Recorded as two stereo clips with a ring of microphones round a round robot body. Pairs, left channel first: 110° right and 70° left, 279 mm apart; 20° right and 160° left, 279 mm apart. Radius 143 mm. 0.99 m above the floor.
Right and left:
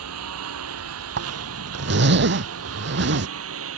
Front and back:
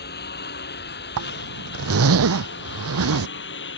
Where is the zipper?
120° left.